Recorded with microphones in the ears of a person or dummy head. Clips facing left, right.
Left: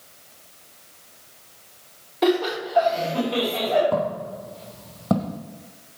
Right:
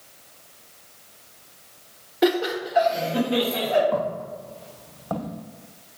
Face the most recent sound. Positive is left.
turn(degrees=60)  # may be behind; listen again after turning